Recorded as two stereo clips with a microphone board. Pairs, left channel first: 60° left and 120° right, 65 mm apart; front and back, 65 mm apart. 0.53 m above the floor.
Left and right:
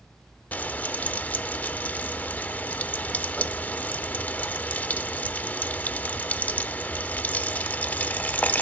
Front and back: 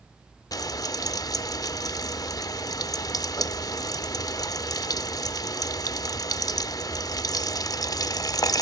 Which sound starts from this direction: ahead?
Frying, at 0.5 s.